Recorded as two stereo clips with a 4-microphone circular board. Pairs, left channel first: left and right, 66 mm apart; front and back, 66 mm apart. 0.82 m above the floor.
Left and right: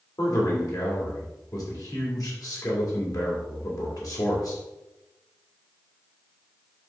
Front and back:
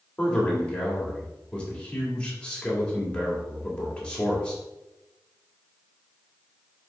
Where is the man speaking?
70° left, 2 m.